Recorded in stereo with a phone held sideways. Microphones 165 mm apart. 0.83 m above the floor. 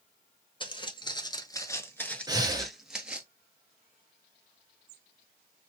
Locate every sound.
0.6 s footsteps: 30° left (ahead or behind), 1.0 m; by 3.3 s 10° right (ahead or behind), 1.1 m
2.3 s breathing: 25° right (ahead or behind), 0.8 m